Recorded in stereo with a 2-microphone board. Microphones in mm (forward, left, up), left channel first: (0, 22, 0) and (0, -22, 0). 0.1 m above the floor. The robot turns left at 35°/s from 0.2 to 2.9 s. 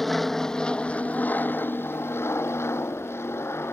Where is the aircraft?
175° left; by 3.7 s 80° left.